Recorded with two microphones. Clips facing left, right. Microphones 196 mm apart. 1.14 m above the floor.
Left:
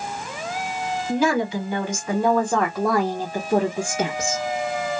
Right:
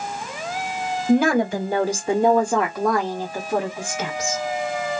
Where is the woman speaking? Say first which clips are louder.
Right 4 dB; 60° right (ahead or behind), 0.9 m; by 4.4 s 40° left (ahead or behind), 1.4 m.